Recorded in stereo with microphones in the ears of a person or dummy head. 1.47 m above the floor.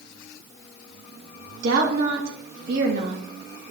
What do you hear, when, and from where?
1.6 s a woman speaking: 60° right (ahead or behind), 3 m